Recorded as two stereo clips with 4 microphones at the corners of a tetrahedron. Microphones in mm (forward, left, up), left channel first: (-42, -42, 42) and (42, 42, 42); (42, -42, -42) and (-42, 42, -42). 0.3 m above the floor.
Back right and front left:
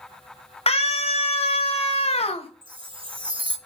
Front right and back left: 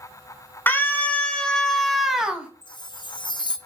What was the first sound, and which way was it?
A scream, 115° right.